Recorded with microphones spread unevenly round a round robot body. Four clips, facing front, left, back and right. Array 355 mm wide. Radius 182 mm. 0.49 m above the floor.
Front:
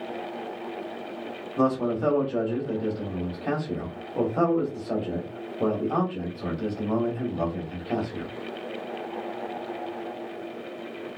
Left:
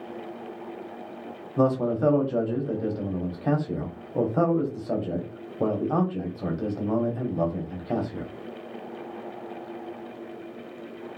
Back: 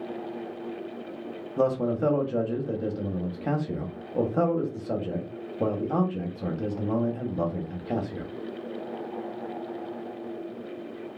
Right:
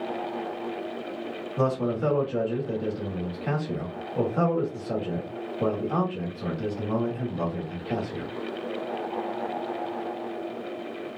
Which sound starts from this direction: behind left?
A man speaking, at 1.6 s.